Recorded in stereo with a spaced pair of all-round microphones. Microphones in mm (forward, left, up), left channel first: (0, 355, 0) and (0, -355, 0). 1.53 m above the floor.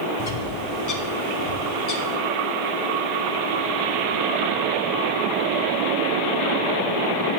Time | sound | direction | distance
0.2 | a bird | 55° left (ahead or behind) | 0.9 m